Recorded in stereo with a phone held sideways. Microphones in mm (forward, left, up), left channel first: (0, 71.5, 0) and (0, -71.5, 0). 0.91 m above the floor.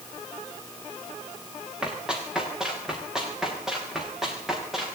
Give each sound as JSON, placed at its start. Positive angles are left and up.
{"t": 1.8, "sound": "running footsteps", "side_deg": -5, "distance_m": 6.5}